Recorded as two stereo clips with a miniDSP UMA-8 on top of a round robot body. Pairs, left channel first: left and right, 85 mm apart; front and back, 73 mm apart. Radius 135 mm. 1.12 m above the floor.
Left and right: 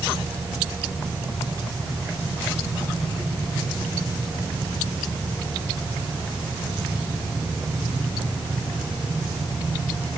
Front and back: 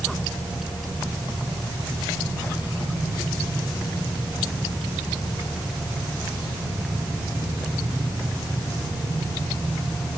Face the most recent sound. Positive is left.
No sound to turn to.